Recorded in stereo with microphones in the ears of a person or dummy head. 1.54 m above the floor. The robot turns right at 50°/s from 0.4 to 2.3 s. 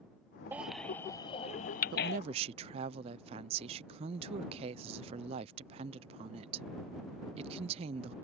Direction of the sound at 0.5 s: 10° right (ahead or behind).